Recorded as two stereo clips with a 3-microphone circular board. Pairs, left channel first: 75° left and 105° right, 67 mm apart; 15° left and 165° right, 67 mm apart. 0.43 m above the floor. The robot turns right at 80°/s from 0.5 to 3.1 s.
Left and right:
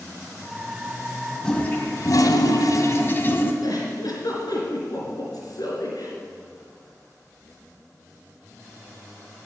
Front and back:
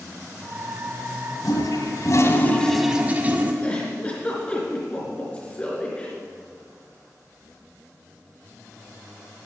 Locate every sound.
1.4 s a toilet flushing: 5° right, 1.5 m; by 3.5 s 130° left, 1.5 m
3.6 s a giggle: 85° left, 3.5 m